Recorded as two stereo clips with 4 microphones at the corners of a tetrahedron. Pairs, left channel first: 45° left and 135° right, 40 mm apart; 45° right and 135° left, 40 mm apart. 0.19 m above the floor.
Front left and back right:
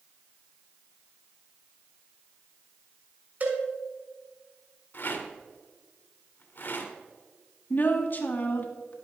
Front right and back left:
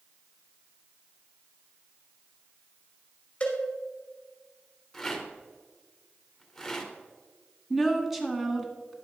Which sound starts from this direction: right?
A cowbell, at 3.4 s.